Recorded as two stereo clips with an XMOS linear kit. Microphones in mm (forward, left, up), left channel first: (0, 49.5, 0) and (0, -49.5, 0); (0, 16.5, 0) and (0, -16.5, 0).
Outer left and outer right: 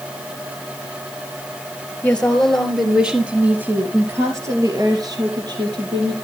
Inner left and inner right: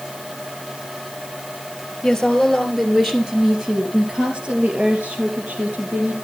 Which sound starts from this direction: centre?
A woman speaking, at 2.0 s.